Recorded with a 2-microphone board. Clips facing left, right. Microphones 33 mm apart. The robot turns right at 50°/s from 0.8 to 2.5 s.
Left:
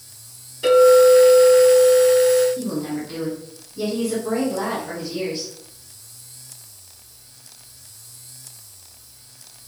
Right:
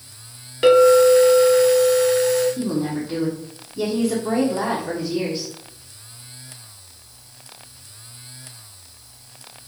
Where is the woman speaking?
10° right (ahead or behind), 0.9 m.